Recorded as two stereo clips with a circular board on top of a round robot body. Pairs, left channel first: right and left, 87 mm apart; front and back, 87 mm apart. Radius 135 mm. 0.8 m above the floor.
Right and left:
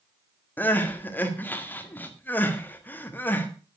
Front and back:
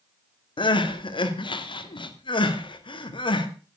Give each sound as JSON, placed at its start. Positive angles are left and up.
{"t": 0.6, "sound": "crying", "azimuth_deg": -20, "distance_m": 2.0}